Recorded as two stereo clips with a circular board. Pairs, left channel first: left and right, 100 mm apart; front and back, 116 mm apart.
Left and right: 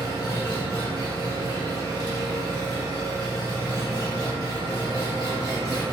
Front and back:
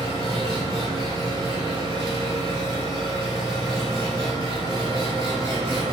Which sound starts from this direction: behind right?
An engine running, at 0.0 s.